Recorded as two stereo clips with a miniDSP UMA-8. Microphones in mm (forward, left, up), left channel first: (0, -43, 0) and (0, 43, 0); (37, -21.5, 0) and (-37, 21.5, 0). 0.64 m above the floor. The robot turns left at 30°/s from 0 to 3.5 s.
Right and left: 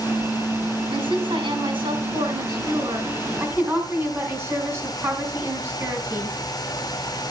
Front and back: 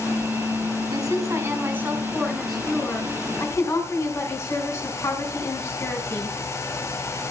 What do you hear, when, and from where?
0.9 s a woman speaking: 105° left, 5 m; by 6.4 s 30° left, 5 m